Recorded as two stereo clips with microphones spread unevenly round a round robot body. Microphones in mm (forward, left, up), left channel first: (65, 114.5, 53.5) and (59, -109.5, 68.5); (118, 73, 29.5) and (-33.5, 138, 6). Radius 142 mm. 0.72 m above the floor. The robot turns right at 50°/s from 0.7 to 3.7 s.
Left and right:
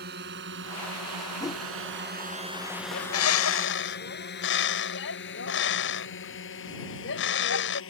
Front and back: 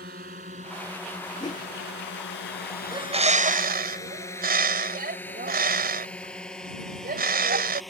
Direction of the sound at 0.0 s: 145° right.